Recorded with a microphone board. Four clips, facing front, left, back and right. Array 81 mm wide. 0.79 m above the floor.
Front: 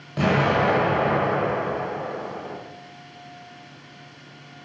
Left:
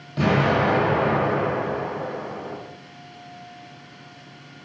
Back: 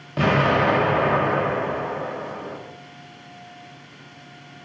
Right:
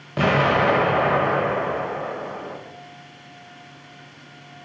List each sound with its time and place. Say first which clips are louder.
0.2 s an explosion: right 1 dB, back 1 dB; 110° right, 0.7 m